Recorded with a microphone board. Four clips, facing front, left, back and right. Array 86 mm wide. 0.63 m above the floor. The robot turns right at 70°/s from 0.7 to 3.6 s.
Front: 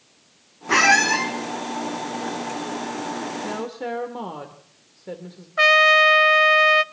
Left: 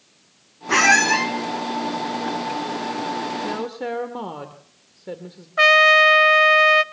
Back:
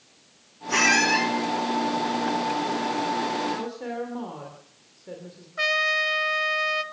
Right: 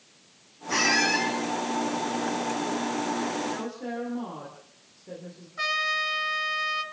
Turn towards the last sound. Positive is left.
turn(degrees=60)